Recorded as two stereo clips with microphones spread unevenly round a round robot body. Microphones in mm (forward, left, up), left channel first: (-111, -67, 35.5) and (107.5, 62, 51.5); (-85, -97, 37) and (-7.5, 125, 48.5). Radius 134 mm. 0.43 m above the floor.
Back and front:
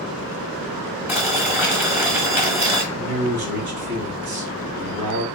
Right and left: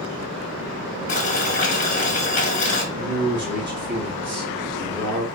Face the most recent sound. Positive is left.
turn(degrees=20)